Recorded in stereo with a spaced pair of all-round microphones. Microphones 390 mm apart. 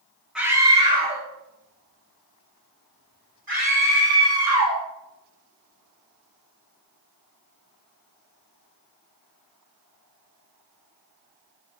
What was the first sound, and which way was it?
A scream, centre (ahead or behind).